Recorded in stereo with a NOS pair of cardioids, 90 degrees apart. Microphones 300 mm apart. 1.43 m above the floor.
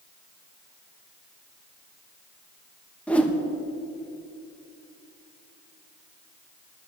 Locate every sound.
3.1 s a whoosh: 5° left, 1.2 m